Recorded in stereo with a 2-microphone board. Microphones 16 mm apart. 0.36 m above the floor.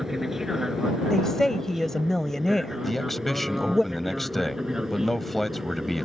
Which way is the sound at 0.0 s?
25° right (ahead or behind).